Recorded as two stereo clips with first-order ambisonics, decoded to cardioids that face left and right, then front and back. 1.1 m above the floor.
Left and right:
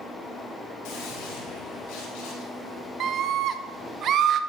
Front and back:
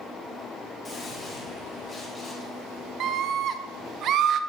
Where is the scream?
140° right, 0.8 m.